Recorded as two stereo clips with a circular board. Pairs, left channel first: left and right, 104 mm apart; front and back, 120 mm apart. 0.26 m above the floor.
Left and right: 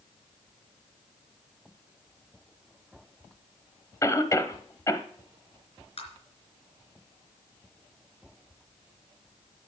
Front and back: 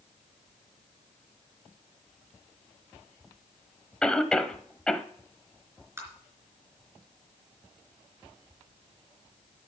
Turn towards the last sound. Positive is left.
turn(degrees=110)